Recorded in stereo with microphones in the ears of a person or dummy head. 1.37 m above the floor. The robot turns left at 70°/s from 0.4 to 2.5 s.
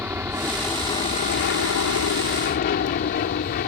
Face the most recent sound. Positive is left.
turn(degrees=45)  # may be behind; listen again after turning